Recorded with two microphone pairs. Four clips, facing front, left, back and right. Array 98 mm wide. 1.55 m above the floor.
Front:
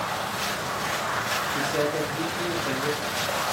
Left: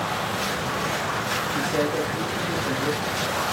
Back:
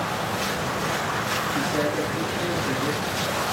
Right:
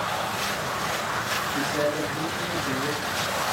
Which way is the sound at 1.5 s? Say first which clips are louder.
Left 1 dB, back 1 dB; 80° left.